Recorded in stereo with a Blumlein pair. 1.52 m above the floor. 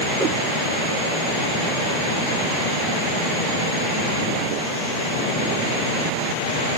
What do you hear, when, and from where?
0.2 s a whoosh: straight ahead, 5 m